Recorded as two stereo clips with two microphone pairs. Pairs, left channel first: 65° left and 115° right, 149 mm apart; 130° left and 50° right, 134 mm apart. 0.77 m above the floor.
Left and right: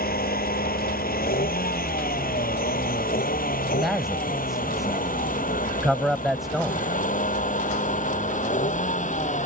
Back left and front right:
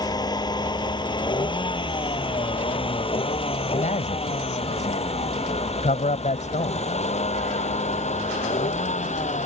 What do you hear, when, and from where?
0.0 s a vehicle: 70° left; by 9.5 s 100° left
3.8 s a man speaking: 155° left